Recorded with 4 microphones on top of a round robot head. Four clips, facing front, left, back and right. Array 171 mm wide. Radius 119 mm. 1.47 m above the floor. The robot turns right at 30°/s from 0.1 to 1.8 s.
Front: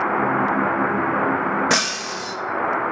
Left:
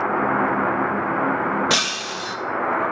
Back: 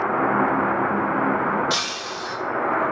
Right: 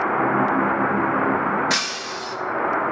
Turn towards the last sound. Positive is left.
turn(degrees=30)